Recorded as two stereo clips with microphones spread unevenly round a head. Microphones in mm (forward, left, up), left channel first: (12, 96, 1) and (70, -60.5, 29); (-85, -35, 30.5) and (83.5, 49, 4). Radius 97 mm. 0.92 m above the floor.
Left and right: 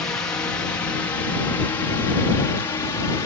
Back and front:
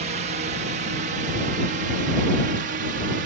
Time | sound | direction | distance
0.0 | a drone | 40° left | ?